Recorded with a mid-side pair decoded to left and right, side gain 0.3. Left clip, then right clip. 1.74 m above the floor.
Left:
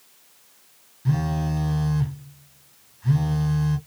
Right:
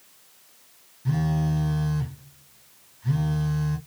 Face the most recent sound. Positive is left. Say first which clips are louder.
# left 1 dB
turn(degrees=35)